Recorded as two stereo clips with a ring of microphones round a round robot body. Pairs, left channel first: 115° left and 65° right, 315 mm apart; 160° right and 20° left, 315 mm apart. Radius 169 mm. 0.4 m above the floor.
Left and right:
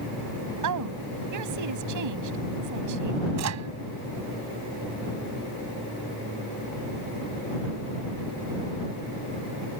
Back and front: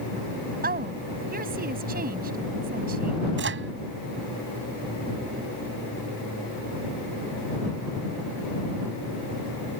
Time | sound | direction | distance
0.6 | a woman speaking | 40° right | ?
3.4 | a microwave | 30° right | ?